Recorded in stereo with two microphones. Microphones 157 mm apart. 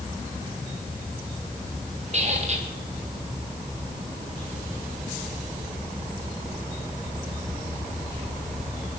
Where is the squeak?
45° right (ahead or behind), 5 m.